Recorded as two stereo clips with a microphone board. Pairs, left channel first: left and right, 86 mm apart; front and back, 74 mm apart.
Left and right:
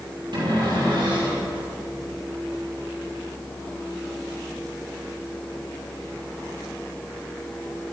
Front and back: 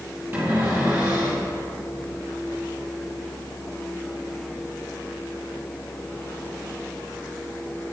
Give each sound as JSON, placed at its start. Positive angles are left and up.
{"t": 0.3, "sound": "a cupboard door", "azimuth_deg": -120, "distance_m": 5.0}